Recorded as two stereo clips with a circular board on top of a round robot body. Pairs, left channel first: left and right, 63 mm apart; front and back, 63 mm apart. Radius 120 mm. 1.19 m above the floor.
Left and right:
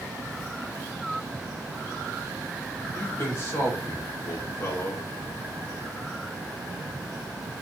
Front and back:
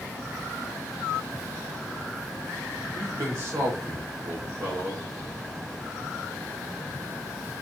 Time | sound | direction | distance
2.9 | a man speaking | 140° left | 1.6 m